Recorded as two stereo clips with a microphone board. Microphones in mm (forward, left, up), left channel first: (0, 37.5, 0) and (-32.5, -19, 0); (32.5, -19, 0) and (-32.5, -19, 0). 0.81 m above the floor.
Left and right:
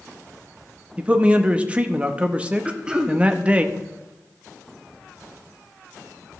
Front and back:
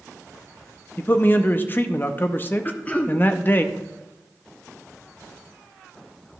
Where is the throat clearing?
50° right, 0.7 m.